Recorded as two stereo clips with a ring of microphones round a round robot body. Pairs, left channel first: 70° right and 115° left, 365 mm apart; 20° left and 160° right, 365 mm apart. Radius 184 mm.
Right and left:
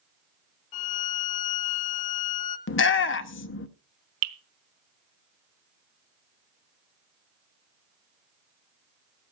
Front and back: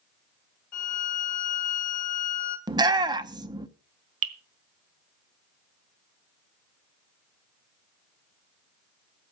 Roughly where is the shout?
Right.